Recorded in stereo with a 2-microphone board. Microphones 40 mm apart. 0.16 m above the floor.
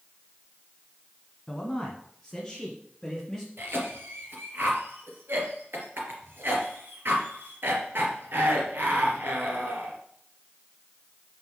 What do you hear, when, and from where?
1.5 s a man speaking: 5° left (ahead or behind), 1.4 m; by 3.5 s centre (ahead or behind), 2.5 m
3.6 s a cough: 65° right (ahead or behind), 3 m